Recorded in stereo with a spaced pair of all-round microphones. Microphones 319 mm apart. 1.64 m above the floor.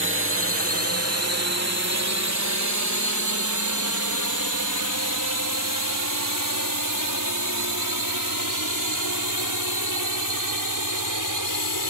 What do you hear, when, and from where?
0.0 s a drone: 40° right (ahead or behind); by 11.9 s 80° right